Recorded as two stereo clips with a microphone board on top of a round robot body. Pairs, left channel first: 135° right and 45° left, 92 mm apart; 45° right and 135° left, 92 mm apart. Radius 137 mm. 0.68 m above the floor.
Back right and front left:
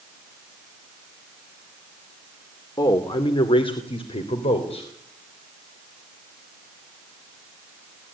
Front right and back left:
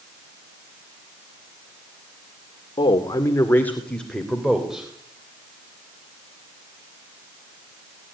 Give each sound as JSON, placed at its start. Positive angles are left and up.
{"t": 2.8, "sound": "a man speaking", "azimuth_deg": -80, "distance_m": 2.0}